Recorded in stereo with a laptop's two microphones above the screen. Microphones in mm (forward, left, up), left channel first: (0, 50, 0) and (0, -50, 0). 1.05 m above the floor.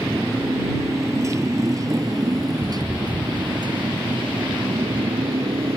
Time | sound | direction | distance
0.0 | a motorcycle | 25° right (ahead or behind) | ?